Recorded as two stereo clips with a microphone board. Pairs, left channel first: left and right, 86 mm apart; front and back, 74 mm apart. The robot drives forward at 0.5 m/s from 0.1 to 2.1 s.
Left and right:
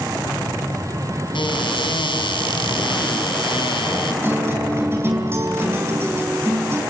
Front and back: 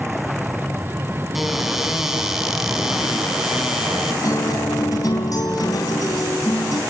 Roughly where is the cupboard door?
Left.